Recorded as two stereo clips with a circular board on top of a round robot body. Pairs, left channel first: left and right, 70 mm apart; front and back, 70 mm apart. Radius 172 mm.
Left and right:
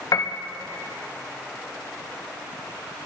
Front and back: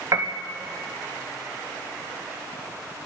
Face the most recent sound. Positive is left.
turn(degrees=135)